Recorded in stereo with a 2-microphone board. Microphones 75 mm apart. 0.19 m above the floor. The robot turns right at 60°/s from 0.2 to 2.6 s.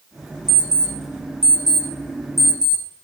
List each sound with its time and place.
0.5 s an alarm clock: 75° right (ahead or behind), 2.5 m; by 2.8 s 45° left (ahead or behind), 2.5 m